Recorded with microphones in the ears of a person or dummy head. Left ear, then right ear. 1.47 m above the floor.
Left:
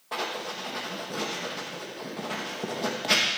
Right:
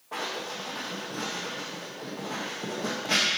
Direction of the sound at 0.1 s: 80° left.